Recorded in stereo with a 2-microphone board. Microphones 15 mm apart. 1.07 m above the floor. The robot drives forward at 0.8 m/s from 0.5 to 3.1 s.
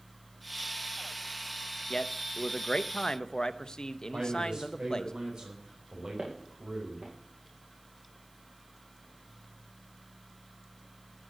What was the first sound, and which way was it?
A man speaking, 55° left (ahead or behind).